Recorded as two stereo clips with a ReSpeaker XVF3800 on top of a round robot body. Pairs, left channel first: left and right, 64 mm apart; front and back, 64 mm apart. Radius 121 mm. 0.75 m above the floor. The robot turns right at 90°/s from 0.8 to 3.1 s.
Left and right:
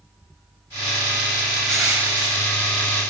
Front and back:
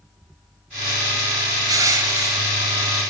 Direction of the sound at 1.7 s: 170° left.